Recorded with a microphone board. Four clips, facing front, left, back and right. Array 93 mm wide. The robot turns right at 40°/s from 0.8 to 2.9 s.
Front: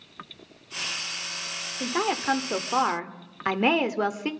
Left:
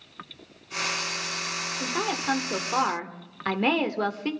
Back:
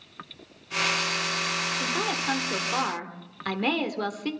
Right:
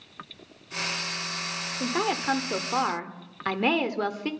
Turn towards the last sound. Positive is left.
turn(degrees=5)